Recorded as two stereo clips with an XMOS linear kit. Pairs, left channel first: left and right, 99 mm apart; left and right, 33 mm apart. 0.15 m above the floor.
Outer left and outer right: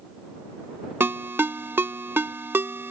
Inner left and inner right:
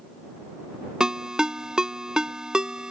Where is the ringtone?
25° right (ahead or behind).